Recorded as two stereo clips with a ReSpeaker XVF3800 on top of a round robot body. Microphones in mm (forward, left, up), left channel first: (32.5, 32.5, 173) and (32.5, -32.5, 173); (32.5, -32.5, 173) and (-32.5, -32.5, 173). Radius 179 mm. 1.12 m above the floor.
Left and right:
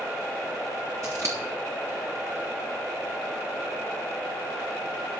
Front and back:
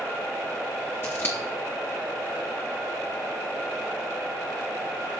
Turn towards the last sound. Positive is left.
turn(degrees=-50)